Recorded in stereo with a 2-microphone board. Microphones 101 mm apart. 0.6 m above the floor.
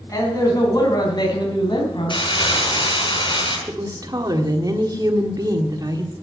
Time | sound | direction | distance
0.1 | a man speaking | 35° left (ahead or behind) | 4.5 m
2.1 | crumpling | 55° left (ahead or behind) | 4.5 m
3.7 | a woman speaking | 40° right (ahead or behind) | 1.6 m